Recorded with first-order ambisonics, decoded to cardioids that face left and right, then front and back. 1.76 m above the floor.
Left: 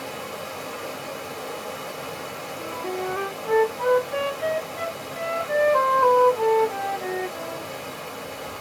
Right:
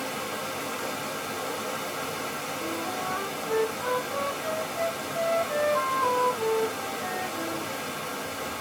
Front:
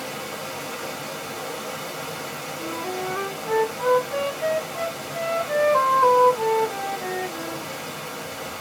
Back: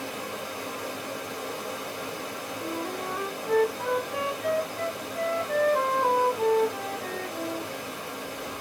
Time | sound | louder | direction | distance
0.0 | running water | right 1 dB, front 3 dB | 45° right | 1.4 m
2.6 | a flute | left 4 dB, front 4 dB | 40° left | 0.7 m